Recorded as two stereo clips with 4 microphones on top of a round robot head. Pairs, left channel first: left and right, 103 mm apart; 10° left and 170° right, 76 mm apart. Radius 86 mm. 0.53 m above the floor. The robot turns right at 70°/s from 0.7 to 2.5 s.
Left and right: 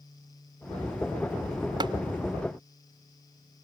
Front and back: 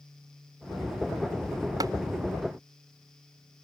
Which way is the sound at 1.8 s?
135° right.